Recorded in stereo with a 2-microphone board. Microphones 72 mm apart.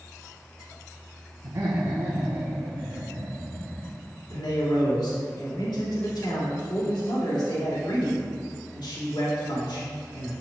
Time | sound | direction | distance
1.4 | laughter | 55° right (ahead or behind) | 1.0 m
4.3 | a man speaking | 85° left | 2 m